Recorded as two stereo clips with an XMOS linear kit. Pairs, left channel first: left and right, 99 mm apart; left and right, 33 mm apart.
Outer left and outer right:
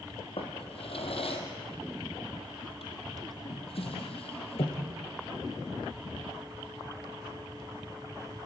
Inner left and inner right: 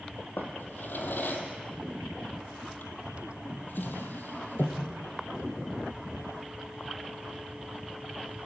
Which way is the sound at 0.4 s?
70° left (ahead or behind).